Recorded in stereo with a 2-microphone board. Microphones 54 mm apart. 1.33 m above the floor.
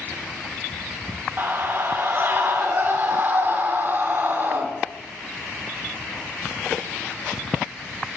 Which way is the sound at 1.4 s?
40° right (ahead or behind).